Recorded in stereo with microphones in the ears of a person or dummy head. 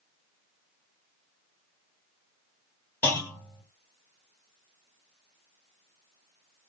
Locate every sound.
3.0 s a clunk: 10° left (ahead or behind), 1.5 m